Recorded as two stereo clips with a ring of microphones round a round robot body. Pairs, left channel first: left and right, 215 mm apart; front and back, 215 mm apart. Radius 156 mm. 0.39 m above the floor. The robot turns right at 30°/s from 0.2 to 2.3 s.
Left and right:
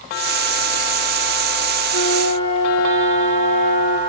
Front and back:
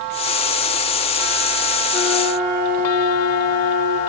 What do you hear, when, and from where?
1.9 s a flute: 100° left, 6.5 m; by 4.0 s 110° left, 6.5 m